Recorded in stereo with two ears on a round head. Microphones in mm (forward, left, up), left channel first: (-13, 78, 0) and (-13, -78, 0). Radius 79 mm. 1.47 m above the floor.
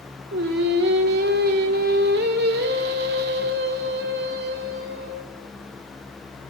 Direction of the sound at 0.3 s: 65° right (ahead or behind).